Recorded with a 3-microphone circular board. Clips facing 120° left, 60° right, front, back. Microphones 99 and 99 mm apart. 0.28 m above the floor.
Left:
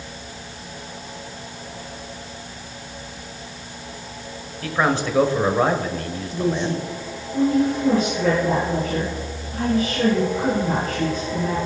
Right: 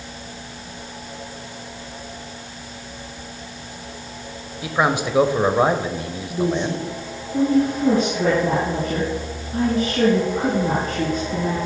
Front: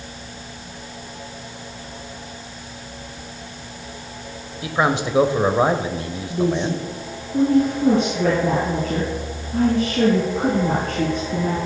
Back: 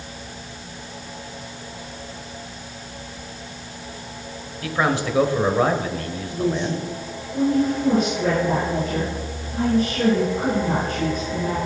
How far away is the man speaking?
About 0.9 m.